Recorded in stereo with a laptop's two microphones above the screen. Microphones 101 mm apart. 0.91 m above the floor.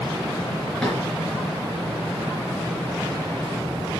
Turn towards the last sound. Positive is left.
turn(degrees=10)  # may be behind; listen again after turning